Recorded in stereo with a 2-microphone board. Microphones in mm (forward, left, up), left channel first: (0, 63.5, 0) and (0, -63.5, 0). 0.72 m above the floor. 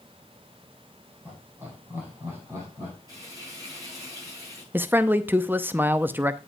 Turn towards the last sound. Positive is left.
turn(degrees=-15)  # may be behind; listen again after turning